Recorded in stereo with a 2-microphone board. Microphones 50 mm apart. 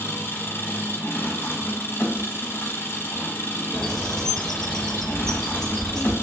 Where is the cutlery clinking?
No cutlery clinking in this recording.